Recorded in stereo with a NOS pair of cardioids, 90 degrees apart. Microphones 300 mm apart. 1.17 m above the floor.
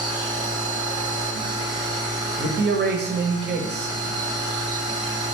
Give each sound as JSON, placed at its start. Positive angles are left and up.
{"t": 0.0, "sound": "a machine running", "azimuth_deg": -15, "distance_m": 1.0}
{"t": 2.4, "sound": "a man speaking", "azimuth_deg": -35, "distance_m": 0.8}